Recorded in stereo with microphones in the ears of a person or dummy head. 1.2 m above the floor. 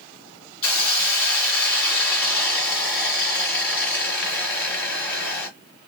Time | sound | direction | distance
0.6 | a hiss | 15° left (ahead or behind) | 2 m